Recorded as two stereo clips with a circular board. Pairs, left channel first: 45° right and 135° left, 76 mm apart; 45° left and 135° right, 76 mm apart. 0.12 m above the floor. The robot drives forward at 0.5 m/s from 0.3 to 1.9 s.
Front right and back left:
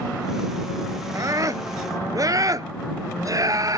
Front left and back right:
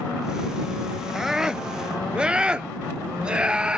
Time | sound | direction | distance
1.1 | a scream | 140° left | ?